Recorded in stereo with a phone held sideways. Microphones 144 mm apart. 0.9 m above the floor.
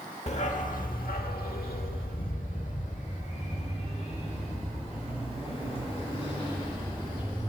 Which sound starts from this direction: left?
A dog barking, at 0.3 s.